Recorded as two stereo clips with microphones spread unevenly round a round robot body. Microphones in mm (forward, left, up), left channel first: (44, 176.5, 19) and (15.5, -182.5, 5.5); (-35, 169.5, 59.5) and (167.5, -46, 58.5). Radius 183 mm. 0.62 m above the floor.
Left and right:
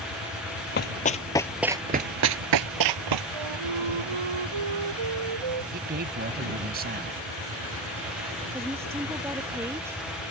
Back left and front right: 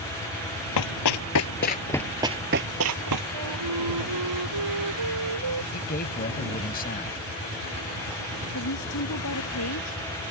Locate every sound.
0.8 s running footsteps: 145° left; by 3.2 s 80° right
3.3 s a flute: 80° right
5.7 s a man speaking: 160° right
8.5 s a woman speaking: straight behind